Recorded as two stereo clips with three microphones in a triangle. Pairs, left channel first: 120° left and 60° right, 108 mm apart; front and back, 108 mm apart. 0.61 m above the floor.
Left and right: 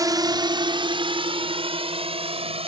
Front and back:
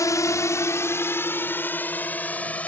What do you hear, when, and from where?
0.0 s a drone: 35° right; by 2.7 s 75° right